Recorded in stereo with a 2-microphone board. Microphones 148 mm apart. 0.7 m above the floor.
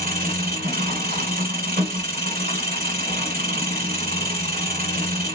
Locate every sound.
0.0 s an engine running: 75° right (ahead or behind), 1.2 m